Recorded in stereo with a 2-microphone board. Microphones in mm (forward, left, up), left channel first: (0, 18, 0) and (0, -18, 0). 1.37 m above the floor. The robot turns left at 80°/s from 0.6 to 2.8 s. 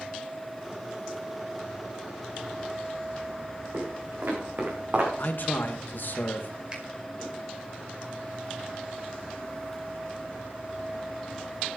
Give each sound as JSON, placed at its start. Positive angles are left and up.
{"t": 3.7, "sound": "footsteps", "side_deg": -70, "distance_m": 5.5}
{"t": 5.2, "sound": "a man speaking", "side_deg": 55, "distance_m": 1.9}
{"t": 6.7, "sound": "a finger snap", "side_deg": -25, "distance_m": 5.0}